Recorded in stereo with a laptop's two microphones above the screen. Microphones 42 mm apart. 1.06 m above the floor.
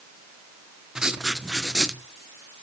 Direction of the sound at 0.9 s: 15° right (ahead or behind).